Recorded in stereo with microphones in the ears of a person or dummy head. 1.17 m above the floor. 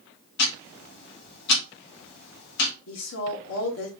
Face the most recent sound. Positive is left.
turn(degrees=85)